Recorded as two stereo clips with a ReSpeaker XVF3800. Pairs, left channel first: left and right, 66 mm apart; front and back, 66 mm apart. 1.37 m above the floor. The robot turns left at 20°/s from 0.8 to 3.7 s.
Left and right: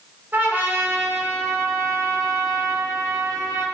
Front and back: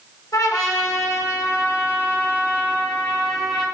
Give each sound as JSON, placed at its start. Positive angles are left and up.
{"t": 0.3, "sound": "a trumpet", "azimuth_deg": -30, "distance_m": 5.5}